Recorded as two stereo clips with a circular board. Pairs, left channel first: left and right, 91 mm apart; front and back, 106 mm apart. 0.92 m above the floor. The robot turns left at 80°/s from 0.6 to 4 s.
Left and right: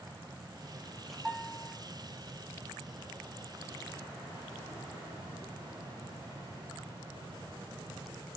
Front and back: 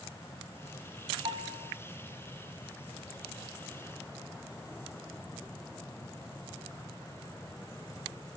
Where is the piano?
175° right, 5.5 m; by 1.8 s 145° left, 5.5 m.